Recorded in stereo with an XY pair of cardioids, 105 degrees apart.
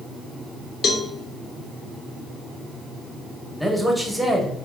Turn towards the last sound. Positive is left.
turn(degrees=5)